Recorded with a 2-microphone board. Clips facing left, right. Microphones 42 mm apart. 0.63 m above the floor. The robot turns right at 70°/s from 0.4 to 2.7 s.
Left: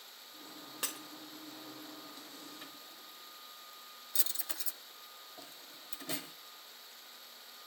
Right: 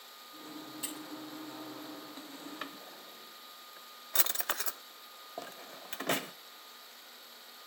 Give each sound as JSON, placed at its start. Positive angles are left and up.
{"t": 0.8, "sound": "breaking glass", "side_deg": 80, "distance_m": 2.5}
{"t": 2.6, "sound": "a drawer", "side_deg": -60, "distance_m": 0.6}